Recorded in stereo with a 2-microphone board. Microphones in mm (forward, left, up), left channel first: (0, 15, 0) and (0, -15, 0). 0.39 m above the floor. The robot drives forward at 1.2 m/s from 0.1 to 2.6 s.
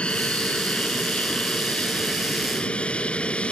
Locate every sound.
0.0 s an aircraft: 40° left (ahead or behind)